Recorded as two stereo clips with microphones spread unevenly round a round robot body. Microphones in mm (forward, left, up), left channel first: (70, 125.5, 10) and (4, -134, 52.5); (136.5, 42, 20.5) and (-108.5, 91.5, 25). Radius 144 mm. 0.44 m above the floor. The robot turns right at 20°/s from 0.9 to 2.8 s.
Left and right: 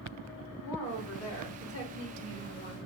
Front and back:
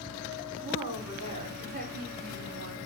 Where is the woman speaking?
100° left, 4 m; by 2.9 s 140° left, 4 m.